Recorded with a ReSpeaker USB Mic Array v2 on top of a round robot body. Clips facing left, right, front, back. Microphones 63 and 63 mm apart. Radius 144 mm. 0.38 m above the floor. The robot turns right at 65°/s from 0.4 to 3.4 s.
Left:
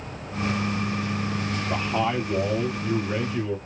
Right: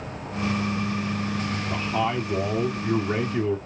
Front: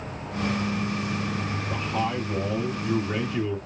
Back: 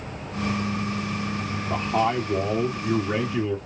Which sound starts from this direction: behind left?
A man speaking, at 1.7 s.